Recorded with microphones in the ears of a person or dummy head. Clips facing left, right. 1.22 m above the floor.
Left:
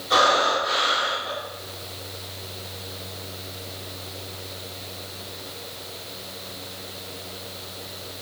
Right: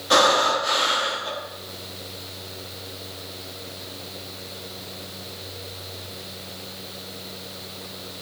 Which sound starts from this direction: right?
Breathing, at 0.1 s.